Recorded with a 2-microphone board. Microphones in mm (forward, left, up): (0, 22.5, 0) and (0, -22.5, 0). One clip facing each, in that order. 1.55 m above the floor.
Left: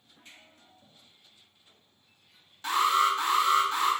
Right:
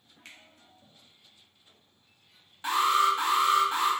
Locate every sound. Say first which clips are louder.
0.2 s a finger snap: right 3 dB; 75° right (ahead or behind), 0.7 m
2.6 s an alarm: even; 20° right (ahead or behind), 1.4 m